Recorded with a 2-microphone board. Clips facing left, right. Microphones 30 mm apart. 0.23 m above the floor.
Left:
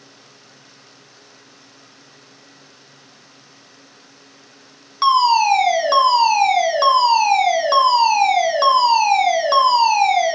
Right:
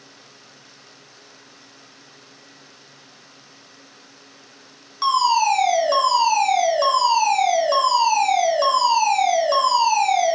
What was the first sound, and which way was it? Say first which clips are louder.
A fire alarm: left 4 dB; 35° left (ahead or behind).